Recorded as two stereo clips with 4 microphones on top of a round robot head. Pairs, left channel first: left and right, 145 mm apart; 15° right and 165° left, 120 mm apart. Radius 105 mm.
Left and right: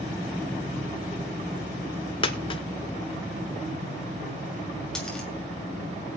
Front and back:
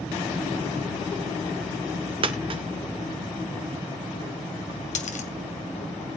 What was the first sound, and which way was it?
A dropped coin, 135° left.